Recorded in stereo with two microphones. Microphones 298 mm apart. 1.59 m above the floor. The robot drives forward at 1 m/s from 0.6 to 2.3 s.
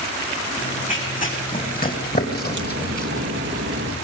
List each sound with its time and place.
0.6 s running footsteps: 25° left (ahead or behind), 6.5 m; by 3.3 s 30° left (ahead or behind), 2.5 m
2.4 s a crack: 40° right (ahead or behind), 2 m